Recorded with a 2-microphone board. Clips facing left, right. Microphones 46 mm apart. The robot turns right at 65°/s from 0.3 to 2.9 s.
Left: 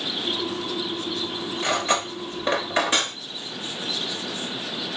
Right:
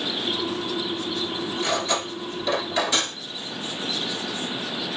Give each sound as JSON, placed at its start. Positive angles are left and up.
{"t": 1.6, "sound": "cutlery clinking", "side_deg": 30, "distance_m": 0.9}